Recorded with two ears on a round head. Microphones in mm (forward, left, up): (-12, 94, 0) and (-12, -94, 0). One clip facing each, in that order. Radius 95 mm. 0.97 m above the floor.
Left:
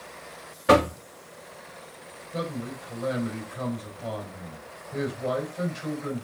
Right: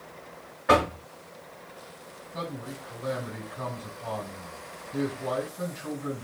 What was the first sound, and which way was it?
Knocking, 45° left (ahead or behind).